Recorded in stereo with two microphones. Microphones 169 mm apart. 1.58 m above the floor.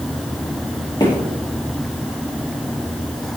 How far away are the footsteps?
About 2 m.